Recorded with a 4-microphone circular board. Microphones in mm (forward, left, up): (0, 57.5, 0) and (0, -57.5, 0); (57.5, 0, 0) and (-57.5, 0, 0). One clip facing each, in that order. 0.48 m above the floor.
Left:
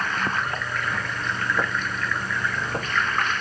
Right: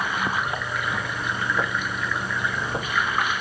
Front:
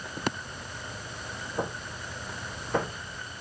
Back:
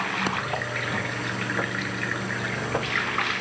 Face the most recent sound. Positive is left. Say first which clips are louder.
# right 1 dB, back 6 dB
turn(degrees=-170)